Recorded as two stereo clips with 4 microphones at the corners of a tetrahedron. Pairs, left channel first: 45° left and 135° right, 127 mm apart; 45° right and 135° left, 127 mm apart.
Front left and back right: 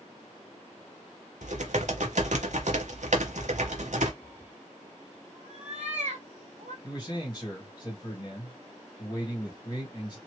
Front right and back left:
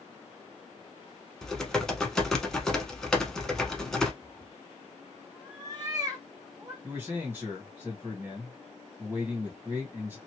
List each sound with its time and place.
1.4 s typing on a keyboard: 130° right, 0.9 m
4.2 s a cat meowing: 165° right, 1.4 m
6.8 s a man speaking: 70° left, 1.8 m